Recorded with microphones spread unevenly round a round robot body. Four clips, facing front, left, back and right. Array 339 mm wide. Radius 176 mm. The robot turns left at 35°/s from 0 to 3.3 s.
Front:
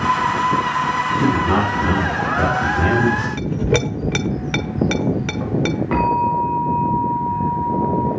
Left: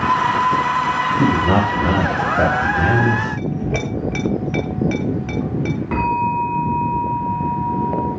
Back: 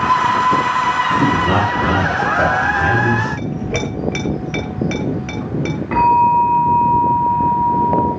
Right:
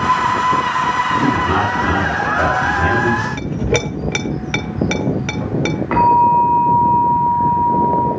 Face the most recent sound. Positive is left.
turn(degrees=45)